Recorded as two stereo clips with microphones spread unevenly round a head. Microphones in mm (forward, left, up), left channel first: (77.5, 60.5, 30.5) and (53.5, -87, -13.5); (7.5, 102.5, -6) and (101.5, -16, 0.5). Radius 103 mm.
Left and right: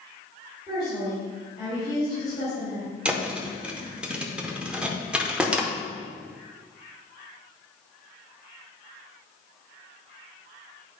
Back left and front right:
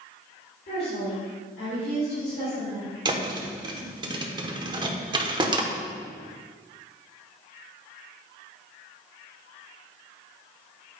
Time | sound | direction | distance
0.7 | a woman speaking | 155° left | 2.5 m
3.0 | a thud | 5° right | 0.9 m